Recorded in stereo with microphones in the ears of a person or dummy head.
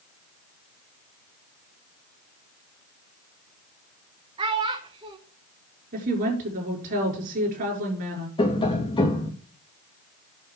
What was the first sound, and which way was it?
A child speaking, 20° right (ahead or behind).